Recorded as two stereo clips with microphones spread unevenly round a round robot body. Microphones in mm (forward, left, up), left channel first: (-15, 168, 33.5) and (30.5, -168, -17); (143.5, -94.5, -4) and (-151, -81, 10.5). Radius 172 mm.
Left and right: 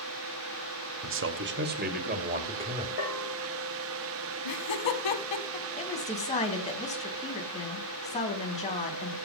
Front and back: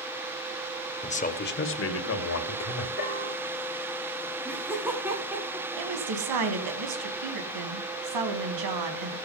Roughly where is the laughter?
Left.